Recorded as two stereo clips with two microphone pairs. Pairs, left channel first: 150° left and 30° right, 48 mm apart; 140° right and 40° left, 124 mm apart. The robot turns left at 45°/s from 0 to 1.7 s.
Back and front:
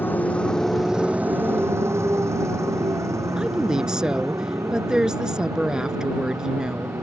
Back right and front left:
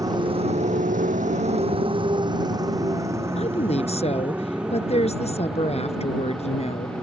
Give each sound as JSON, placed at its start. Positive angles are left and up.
{"t": 0.0, "sound": "a motorcycle", "azimuth_deg": 105}
{"t": 3.4, "sound": "a woman speaking", "azimuth_deg": -105}